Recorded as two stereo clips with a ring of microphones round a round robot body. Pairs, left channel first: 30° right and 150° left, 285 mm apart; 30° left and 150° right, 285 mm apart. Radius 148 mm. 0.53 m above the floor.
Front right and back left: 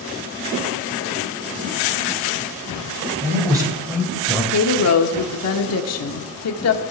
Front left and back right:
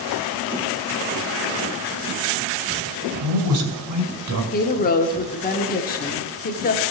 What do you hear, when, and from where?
3.2 s a man speaking: 140° right, 2 m; by 4.4 s 115° right, 2 m
4.5 s a woman speaking: 25° right, 1.1 m